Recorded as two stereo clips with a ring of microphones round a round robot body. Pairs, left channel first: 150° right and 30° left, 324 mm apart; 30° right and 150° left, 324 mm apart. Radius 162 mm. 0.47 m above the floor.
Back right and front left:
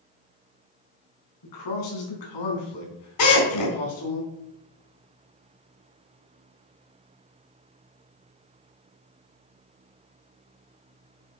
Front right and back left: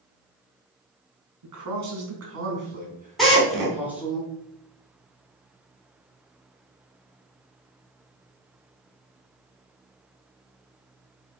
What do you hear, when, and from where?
1.4 s a man speaking: straight behind, 4 m; by 4.2 s 120° right, 4 m
3.2 s a drill: 120° right, 4 m